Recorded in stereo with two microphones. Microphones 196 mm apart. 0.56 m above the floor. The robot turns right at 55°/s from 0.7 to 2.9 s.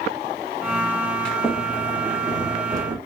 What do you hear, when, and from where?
1.2 s a sliding door: 5° left (ahead or behind), 0.7 m; by 3.0 s 20° right (ahead or behind), 0.7 m